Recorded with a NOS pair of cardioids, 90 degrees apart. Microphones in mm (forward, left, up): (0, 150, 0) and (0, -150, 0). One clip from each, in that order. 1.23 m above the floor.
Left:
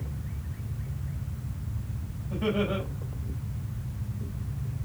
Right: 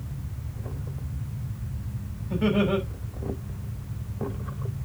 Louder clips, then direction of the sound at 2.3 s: Right 4 dB; 40° right.